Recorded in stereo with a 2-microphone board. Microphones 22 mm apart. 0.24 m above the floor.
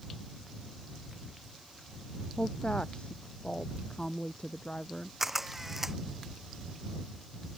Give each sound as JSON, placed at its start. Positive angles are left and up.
{"t": 2.4, "sound": "a woman speaking", "side_deg": 50}
{"t": 5.2, "sound": "a camera shutter", "side_deg": -15}